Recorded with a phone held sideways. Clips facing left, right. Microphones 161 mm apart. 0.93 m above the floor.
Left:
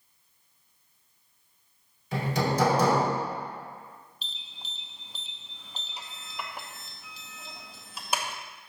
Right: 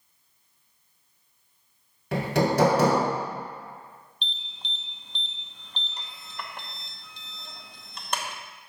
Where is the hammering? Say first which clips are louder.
Right 4 dB; 70° right (ahead or behind), 1.8 m.